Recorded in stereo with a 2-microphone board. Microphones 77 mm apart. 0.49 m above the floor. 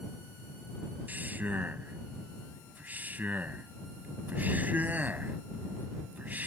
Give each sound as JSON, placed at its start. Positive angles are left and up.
{"t": 1.1, "sound": "a man speaking", "side_deg": -25}